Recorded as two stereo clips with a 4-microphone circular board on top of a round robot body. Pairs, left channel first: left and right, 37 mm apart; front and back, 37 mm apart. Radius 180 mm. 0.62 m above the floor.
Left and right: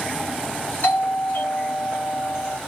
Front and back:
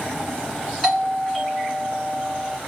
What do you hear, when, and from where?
0.8 s a doorbell: 95° left, 2.5 m